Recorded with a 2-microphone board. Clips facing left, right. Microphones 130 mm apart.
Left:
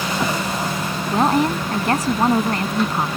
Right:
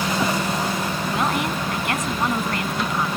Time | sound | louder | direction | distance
1.1 | a woman speaking | left 8 dB | 35° left (ahead or behind) | ?